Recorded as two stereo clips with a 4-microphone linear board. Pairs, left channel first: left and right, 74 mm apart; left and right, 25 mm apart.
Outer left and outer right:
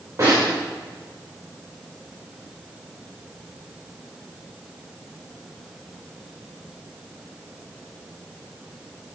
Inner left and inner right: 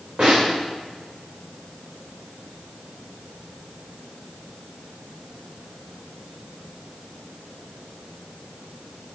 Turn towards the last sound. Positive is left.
turn(degrees=-35)  # may be behind; listen again after turning